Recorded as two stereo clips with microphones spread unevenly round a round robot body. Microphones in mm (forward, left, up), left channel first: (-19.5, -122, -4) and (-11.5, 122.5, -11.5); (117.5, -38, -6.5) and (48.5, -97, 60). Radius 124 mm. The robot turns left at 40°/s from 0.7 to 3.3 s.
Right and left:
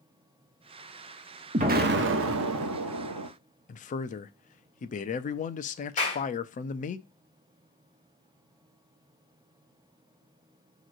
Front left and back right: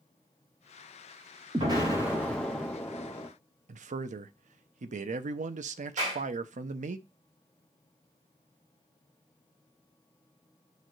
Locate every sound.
1.5 s an explosion: 145° left, 1.0 m; by 3.3 s 75° left, 1.0 m
3.7 s a man speaking: 140° right, 0.5 m
6.0 s a clap: 155° right, 3 m